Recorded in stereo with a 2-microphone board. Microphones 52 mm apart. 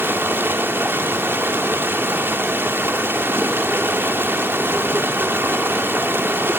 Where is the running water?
45° right (ahead or behind), 1.7 m.